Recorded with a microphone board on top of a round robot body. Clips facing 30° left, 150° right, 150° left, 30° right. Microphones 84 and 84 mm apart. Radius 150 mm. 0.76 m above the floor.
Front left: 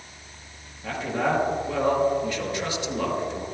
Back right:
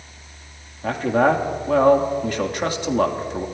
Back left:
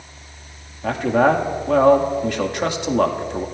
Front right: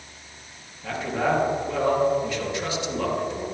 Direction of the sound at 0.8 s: 175° left.